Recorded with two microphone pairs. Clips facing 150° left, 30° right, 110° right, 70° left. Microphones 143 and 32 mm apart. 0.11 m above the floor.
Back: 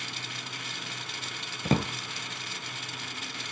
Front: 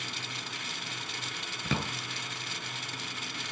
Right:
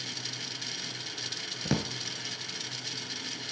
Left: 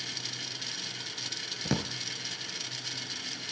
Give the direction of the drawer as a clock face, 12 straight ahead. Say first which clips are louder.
Back 7 dB, right 1 dB; 7 o'clock.